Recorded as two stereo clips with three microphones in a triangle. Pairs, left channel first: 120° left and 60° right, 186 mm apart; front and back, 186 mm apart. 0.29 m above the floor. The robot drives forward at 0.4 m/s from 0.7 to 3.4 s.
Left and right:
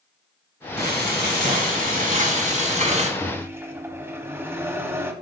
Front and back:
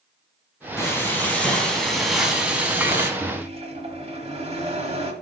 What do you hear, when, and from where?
0.8 s frying: 75° right, 2 m; by 3.1 s 105° right, 2 m
3.2 s a microwave: 130° right, 1.4 m; by 5.1 s 135° right, 1.4 m